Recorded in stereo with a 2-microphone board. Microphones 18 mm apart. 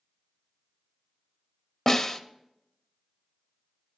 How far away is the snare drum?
About 0.6 m.